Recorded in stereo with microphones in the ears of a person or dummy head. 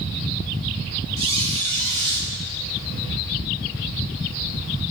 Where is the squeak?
30° right (ahead or behind), 4 m.